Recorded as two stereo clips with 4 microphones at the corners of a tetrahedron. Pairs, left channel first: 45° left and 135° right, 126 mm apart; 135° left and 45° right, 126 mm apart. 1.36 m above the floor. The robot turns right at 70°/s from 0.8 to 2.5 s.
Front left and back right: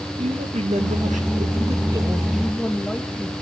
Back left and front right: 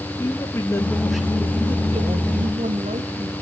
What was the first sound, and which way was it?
A man speaking, 160° right.